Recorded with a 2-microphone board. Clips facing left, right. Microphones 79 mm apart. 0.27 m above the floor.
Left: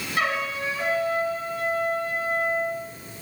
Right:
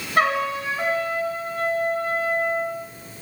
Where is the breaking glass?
I don't hear breaking glass.